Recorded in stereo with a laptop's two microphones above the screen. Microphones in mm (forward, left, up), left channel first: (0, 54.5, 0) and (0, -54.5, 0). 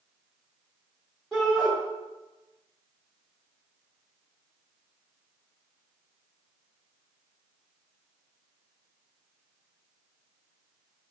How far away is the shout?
About 1.5 m.